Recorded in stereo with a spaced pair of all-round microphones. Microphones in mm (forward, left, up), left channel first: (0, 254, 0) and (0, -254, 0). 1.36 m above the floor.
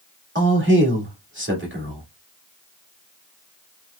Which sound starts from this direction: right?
A man speaking, at 0.3 s.